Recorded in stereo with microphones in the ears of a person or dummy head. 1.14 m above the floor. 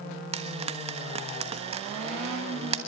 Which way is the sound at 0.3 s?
30° right (ahead or behind).